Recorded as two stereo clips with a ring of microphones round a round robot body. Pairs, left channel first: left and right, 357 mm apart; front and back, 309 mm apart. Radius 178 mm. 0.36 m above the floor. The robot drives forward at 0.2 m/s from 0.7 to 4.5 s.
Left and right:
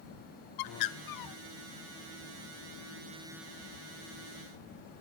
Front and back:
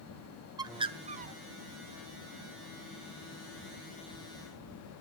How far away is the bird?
About 0.5 m.